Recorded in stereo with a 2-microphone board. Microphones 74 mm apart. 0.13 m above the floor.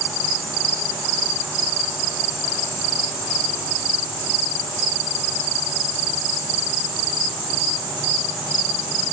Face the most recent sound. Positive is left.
No sound to turn to.